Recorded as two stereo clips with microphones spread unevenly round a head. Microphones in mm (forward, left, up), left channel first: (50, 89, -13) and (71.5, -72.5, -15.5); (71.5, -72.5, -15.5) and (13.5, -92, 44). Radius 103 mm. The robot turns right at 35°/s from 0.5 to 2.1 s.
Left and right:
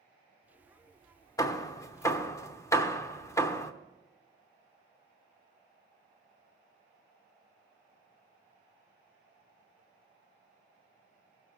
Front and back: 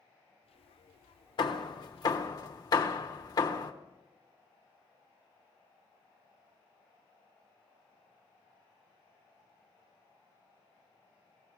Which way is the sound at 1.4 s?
100° left.